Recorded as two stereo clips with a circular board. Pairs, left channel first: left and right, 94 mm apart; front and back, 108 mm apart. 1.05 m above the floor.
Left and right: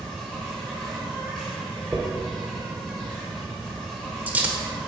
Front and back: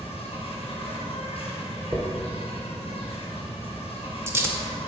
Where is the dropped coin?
145° right, 0.8 m.